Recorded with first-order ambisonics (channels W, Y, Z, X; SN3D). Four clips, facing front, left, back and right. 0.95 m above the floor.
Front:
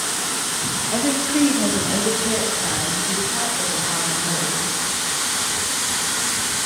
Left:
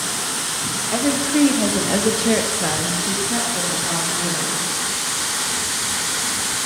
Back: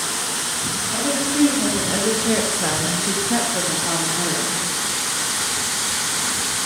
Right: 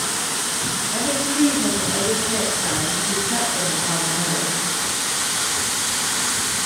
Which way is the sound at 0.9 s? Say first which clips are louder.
Left 5 dB, front 1 dB; 60° left.